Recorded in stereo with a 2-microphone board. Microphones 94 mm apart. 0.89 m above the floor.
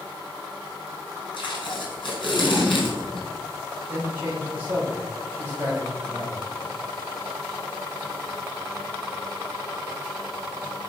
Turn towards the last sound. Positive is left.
turn(degrees=-20)  # may be behind; listen again after turning